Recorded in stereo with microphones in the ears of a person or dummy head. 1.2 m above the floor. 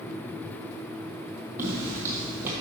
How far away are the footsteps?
About 1.3 m.